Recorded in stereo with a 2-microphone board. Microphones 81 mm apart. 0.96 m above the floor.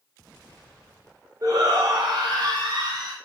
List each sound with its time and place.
1.4 s a shout: 50° right (ahead or behind), 1.0 m; by 3.1 s 75° right (ahead or behind), 1.4 m